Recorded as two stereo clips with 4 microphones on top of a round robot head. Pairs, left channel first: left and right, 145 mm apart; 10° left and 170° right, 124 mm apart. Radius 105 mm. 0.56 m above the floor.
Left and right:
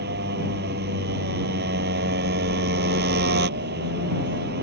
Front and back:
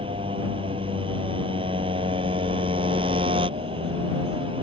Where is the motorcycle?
110° right.